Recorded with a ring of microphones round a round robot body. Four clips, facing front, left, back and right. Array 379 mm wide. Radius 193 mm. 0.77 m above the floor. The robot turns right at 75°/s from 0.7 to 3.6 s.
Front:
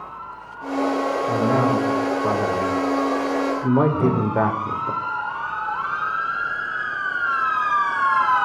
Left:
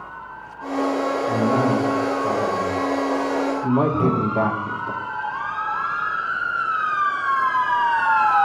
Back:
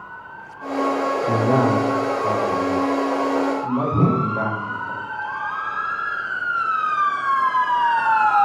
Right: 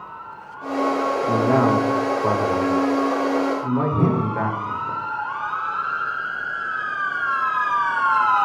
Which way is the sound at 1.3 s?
160° right.